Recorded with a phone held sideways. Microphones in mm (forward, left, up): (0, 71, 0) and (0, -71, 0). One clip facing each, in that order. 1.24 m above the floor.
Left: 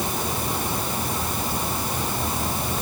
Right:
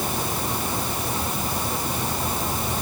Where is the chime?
I don't hear a chime.